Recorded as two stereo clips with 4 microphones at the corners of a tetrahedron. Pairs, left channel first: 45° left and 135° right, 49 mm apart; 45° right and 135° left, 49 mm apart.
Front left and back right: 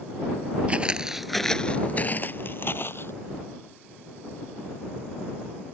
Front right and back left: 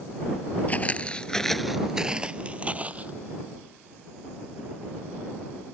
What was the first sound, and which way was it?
Footsteps, 90° right.